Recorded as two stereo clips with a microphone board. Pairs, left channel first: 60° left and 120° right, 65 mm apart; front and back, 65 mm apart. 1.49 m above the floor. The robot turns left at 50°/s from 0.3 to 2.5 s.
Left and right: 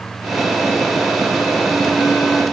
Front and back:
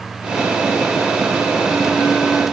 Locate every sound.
Only background noise.